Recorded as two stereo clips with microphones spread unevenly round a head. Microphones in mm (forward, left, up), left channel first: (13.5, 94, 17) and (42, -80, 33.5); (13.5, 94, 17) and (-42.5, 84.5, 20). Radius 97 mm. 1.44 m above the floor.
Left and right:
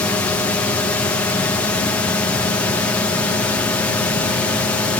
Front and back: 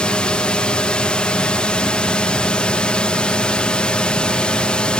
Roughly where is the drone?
Ahead left.